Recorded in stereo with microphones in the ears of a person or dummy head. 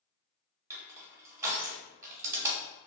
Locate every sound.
0.7 s crushing: 15° right (ahead or behind), 1.2 m